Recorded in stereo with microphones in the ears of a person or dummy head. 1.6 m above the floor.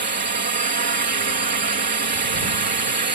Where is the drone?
45° right (ahead or behind).